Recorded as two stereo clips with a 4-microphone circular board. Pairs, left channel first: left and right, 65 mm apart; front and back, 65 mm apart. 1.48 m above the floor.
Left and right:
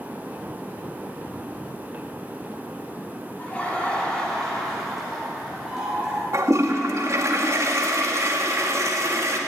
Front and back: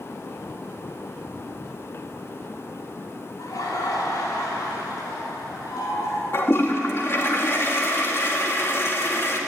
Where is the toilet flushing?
50° right, 2.5 m.